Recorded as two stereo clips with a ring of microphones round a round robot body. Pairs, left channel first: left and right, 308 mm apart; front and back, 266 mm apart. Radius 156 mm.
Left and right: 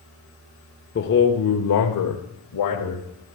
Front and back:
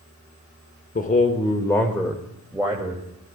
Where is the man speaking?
45° left, 1.2 m; by 3.4 s 105° left, 2.5 m.